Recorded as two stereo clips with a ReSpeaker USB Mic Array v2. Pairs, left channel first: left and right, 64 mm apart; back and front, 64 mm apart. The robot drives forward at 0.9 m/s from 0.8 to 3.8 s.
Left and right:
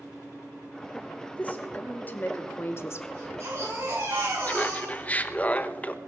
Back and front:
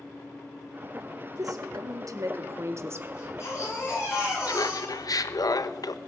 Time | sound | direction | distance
1.3 | a woman speaking | 25° left | 3 m
3.1 | a baby crying | 135° right | 9 m
4.5 | laughter | 155° left | 0.8 m